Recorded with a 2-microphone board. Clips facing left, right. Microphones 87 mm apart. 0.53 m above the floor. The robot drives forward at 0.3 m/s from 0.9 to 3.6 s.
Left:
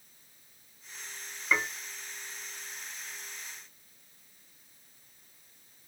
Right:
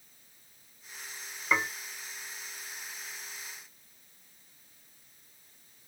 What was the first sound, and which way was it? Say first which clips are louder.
Dishes clattering: right 1 dB; 15° right (ahead or behind).